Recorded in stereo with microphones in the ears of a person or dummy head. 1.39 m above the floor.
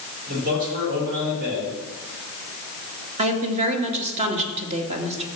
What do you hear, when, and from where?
0.3 s a man speaking: 45° right (ahead or behind), 6.5 m
3.2 s a woman speaking: 35° right (ahead or behind), 2 m